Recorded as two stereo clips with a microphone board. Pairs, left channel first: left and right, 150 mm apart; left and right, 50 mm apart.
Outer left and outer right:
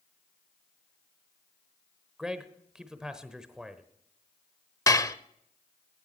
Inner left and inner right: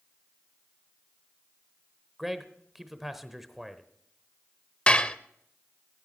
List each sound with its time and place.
2.2 s a man speaking: 5° right (ahead or behind), 0.9 m
4.9 s dishes clattering: 25° left (ahead or behind), 0.6 m